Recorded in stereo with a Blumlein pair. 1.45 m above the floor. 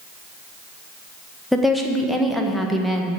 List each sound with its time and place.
1.5 s a woman speaking: straight ahead, 1.5 m